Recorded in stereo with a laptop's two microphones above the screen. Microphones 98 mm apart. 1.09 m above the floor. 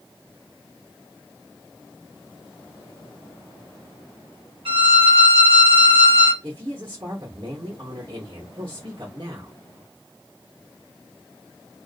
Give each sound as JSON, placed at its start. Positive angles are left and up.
{"t": 4.7, "sound": "a violin", "side_deg": -60, "distance_m": 0.9}
{"t": 6.4, "sound": "a woman speaking", "side_deg": -40, "distance_m": 0.9}